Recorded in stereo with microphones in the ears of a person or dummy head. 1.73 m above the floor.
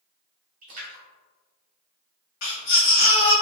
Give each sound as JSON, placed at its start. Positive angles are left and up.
{"t": 0.6, "sound": "a splash", "side_deg": -40, "distance_m": 0.8}
{"t": 2.4, "sound": "a baby crying", "side_deg": 45, "distance_m": 1.1}